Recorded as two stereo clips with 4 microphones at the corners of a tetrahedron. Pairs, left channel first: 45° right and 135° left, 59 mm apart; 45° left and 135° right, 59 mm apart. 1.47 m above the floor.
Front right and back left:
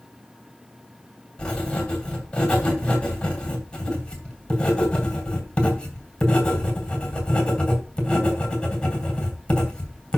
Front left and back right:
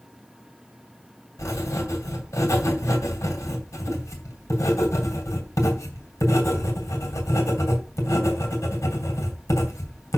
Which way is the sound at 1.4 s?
25° left.